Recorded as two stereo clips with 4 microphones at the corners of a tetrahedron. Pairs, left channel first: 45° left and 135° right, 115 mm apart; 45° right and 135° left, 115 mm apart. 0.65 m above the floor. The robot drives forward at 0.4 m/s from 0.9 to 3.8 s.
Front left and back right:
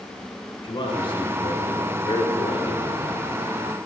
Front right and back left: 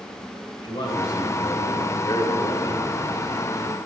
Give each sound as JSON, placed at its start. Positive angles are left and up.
{"t": 0.6, "sound": "a man speaking", "azimuth_deg": 5, "distance_m": 2.5}